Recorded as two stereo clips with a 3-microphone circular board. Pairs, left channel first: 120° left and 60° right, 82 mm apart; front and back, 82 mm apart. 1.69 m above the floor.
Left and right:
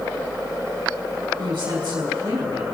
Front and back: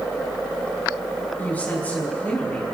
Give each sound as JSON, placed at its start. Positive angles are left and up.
{"t": 1.4, "sound": "a woman speaking", "azimuth_deg": -70, "distance_m": 3.0}